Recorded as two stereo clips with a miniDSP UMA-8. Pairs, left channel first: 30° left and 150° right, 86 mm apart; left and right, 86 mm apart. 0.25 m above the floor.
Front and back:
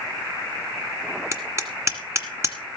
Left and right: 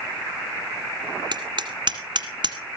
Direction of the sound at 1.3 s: 100° right.